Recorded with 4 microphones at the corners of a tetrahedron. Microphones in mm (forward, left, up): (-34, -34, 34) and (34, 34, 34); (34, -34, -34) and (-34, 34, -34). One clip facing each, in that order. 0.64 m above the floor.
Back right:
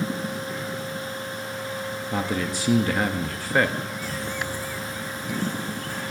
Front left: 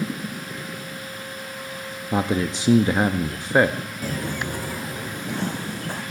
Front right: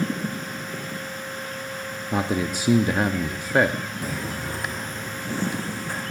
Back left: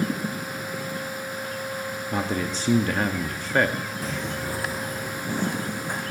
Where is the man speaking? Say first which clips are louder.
Front left 5 dB, front right 3 dB; 10° left, 0.5 m.